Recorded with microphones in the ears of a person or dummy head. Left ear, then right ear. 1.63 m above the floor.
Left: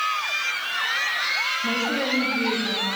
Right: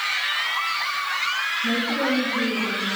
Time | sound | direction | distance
1.6 | a woman speaking | 45° left (ahead or behind) | 2.5 m